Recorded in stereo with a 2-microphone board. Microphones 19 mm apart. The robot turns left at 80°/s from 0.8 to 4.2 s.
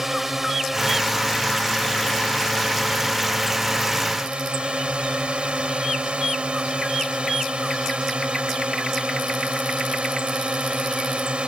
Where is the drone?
165° right; by 11.5 s 80° right.